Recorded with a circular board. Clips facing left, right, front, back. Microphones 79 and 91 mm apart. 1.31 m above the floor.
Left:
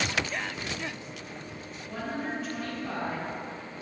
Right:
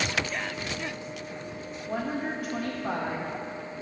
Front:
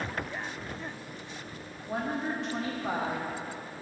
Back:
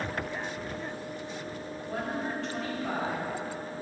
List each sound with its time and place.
1.9 s a woman speaking: 70° right, 1.1 m